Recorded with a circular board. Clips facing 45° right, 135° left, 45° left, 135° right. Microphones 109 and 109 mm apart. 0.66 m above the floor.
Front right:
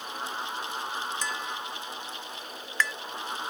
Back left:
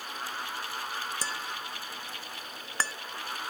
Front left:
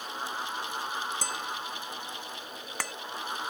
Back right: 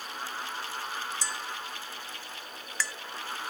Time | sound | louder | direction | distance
1.2 | tapping | front right 3 dB, front left 2 dB | 80° left | ?